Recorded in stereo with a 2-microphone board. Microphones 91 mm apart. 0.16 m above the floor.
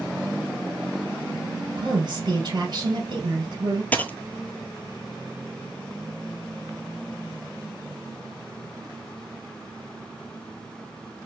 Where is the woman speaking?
55° right (ahead or behind), 3 m.